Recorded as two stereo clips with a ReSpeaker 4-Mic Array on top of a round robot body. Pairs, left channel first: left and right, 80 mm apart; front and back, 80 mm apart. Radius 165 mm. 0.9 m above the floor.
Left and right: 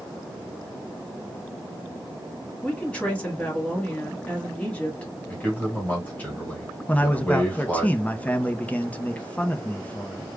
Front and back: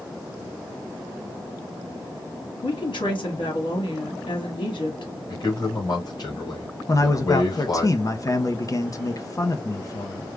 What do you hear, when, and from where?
2.6 s a woman speaking: 10° left, 2 m
5.3 s a man speaking: 20° left, 1.7 m
6.9 s a man speaking: 25° left, 0.8 m